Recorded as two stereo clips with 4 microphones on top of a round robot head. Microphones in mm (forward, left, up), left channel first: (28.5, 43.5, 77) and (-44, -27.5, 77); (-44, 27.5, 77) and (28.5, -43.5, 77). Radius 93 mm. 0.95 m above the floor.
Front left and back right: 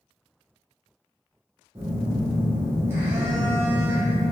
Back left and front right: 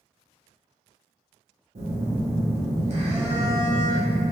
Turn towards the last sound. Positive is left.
turn(degrees=-70)